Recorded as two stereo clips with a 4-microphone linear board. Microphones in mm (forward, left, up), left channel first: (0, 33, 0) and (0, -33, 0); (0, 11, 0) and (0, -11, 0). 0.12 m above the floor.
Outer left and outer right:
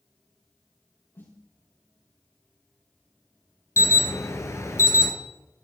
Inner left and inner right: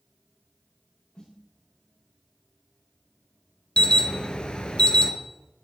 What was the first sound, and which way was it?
A snare drum, 40° left (ahead or behind).